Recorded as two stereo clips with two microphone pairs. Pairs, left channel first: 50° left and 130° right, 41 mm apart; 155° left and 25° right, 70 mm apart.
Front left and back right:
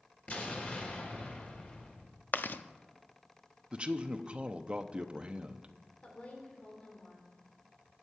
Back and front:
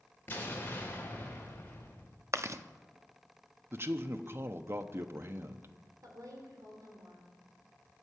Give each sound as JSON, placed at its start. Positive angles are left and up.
{"t": 0.3, "sound": "an explosion", "azimuth_deg": 100, "distance_m": 3.5}
{"t": 2.3, "sound": "chewing", "azimuth_deg": 20, "distance_m": 0.6}
{"t": 3.7, "sound": "a man speaking", "azimuth_deg": -70, "distance_m": 0.9}
{"t": 6.0, "sound": "a woman speaking", "azimuth_deg": -5, "distance_m": 2.5}